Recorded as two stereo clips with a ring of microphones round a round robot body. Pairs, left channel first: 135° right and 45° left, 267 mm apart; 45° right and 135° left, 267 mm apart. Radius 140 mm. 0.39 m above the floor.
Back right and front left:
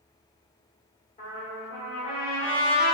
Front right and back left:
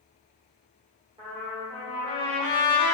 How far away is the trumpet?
About 1.6 m.